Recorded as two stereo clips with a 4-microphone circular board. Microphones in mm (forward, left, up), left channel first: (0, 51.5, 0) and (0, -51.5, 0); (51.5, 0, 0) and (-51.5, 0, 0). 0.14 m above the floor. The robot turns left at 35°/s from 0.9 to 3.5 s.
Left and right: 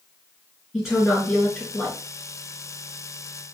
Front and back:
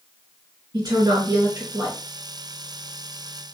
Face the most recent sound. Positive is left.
turn(degrees=95)